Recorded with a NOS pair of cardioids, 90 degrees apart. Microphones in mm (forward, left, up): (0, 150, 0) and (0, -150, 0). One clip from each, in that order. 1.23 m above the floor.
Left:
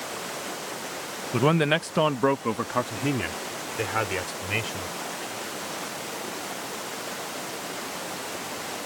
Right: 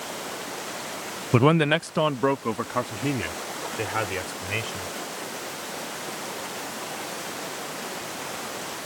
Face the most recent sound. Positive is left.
turn(degrees=10)